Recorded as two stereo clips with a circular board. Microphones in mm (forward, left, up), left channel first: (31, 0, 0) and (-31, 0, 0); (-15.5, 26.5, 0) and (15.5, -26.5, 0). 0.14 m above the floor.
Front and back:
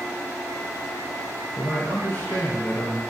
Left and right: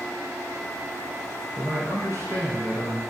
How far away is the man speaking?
About 1.8 m.